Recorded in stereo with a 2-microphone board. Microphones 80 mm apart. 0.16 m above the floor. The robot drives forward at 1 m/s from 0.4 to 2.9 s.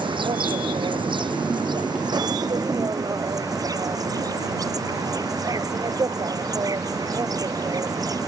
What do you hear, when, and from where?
0.0 s an insect: 85° right; by 8.3 s 50° right (ahead or behind)